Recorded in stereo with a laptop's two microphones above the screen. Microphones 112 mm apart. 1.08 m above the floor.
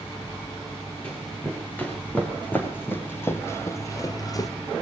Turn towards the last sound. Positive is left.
turn(degrees=30)  # may be behind; listen again after turning